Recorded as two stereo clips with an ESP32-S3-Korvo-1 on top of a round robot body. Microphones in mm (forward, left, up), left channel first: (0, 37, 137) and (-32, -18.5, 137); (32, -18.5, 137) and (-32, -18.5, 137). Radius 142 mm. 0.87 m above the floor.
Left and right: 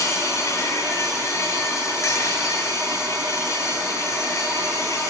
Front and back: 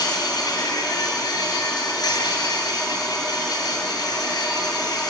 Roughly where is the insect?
Ahead.